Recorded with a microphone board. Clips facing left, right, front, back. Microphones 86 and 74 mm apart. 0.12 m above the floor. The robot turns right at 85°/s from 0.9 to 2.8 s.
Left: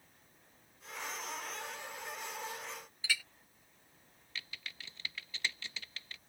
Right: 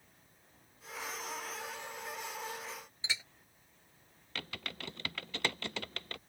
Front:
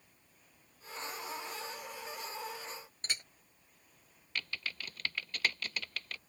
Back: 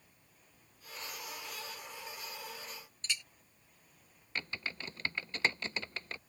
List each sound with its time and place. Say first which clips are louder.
3.0 s a clink: left 3 dB, back 1 dB; 30° right
4.3 s typing on a keyboard: right 5 dB, back 1 dB; 115° right